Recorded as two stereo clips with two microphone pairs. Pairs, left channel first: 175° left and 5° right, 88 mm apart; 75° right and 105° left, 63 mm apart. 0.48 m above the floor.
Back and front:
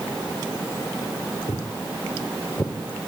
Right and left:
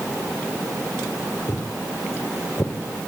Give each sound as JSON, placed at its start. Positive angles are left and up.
{"t": 1.5, "sound": "footsteps", "azimuth_deg": -140, "distance_m": 3.0}